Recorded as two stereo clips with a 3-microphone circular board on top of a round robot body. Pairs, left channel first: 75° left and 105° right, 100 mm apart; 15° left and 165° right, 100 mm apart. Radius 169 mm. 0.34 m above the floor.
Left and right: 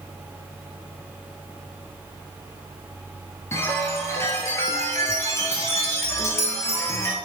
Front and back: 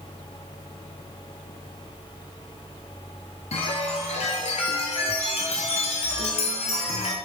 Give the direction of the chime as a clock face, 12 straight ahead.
12 o'clock.